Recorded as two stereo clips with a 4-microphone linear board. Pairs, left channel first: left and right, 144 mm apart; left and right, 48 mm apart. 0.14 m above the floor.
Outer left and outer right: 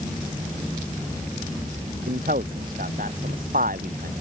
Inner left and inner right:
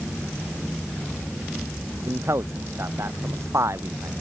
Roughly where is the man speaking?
Right.